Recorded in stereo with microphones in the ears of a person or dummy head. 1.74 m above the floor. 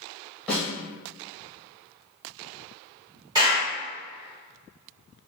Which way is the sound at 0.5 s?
Centre (ahead or behind).